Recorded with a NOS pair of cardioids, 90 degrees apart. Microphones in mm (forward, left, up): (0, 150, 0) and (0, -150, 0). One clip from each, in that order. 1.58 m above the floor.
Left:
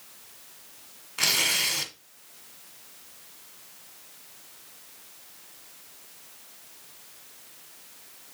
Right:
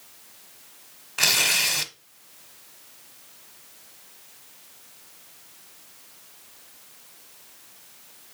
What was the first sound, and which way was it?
Tearing paper, 25° right.